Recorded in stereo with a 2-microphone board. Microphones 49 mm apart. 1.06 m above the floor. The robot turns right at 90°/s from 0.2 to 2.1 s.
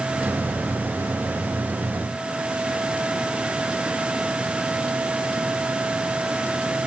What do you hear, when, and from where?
Only background noise.